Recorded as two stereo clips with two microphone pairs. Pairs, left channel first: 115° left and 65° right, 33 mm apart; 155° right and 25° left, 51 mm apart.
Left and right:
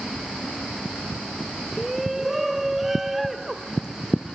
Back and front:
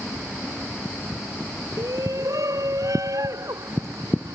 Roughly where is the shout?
Ahead.